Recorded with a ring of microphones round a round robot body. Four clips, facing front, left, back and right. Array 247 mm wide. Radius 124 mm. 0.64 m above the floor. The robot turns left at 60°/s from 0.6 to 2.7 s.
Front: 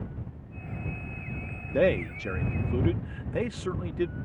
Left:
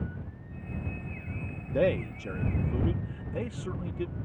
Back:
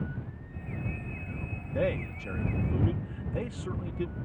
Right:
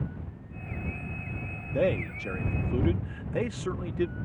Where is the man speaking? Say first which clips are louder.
Even, front 6 dB; 15° left; by 4.2 s 40° right.